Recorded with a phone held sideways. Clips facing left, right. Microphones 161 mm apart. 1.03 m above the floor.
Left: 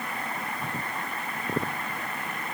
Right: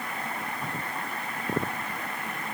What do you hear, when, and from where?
Only background noise.